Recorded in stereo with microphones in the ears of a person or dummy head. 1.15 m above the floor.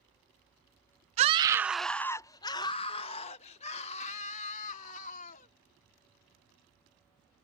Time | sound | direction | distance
1.2 | a scream | 35° right (ahead or behind) | ?